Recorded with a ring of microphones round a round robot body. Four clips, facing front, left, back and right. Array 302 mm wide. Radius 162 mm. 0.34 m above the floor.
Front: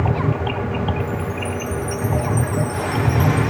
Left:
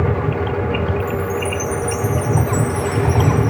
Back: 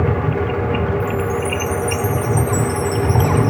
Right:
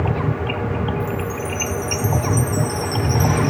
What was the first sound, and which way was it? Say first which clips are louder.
A chime: left 4 dB, back 5 dB; 165° right.